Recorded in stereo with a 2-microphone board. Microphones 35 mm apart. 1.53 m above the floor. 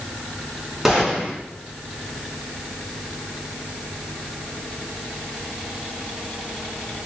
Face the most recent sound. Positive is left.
turn(degrees=-15)  # may be behind; listen again after turning